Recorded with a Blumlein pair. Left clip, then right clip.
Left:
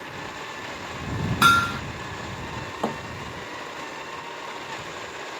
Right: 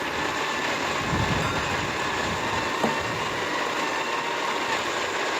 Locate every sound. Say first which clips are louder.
0.0 s a machine running: right 9 dB; 65° right
1.4 s hammering: left 8 dB; 40° left
2.8 s a thud: right 1 dB; 5° right